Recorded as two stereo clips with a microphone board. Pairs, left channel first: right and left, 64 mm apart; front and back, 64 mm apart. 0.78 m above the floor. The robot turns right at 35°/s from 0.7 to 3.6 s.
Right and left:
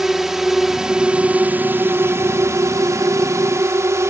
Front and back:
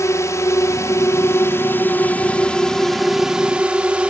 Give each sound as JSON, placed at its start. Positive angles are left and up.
{"t": 0.0, "sound": "a drone", "azimuth_deg": 5}